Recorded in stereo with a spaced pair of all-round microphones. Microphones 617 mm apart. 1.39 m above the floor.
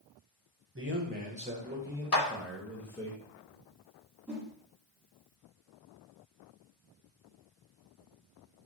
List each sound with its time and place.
0.8 s a man speaking: 20° right (ahead or behind), 1.4 m; by 3.1 s 5° left (ahead or behind), 2.5 m
2.1 s a clap: 70° left (ahead or behind), 1.4 m
4.3 s a whoosh: centre (ahead or behind), 2 m